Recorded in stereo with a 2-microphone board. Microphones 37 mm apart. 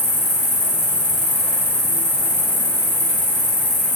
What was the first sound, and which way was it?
An insect, 75° left (ahead or behind).